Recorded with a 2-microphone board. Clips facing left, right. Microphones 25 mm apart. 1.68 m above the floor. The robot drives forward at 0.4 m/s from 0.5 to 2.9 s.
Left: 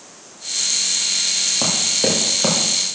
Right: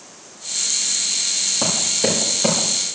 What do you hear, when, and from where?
1.6 s running footsteps: 10° left (ahead or behind), 3 m; by 2.7 s 20° left (ahead or behind), 2.5 m